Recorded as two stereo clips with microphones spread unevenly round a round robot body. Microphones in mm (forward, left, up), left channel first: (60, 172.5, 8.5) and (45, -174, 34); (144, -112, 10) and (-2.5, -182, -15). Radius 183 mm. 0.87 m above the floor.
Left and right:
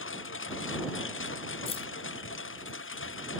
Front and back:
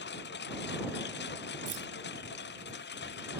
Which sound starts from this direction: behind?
Keys jangling, at 1.7 s.